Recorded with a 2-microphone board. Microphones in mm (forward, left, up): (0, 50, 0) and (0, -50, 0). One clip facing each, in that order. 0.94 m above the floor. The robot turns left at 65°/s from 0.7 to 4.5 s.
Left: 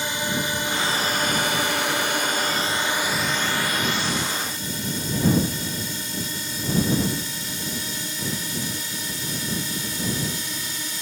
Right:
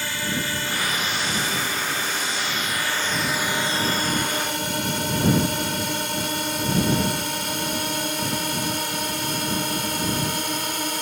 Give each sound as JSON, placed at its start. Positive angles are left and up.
{"t": 0.0, "sound": "a drone", "side_deg": 20}